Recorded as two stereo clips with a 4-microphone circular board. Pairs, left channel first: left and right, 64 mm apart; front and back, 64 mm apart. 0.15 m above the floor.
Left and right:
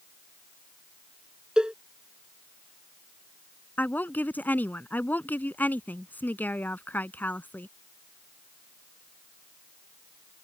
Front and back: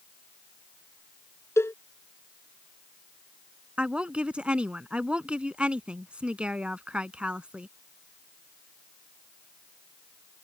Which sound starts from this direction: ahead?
A cowbell, at 1.6 s.